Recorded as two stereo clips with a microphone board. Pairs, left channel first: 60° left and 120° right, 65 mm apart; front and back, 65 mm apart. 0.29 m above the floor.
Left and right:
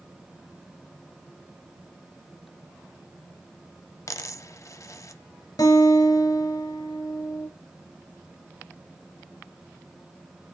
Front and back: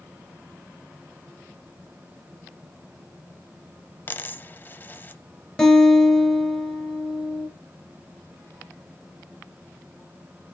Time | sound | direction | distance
4.1 | a dropped coin | 50° left | 0.5 m
5.6 | a guitar | 80° left | 3 m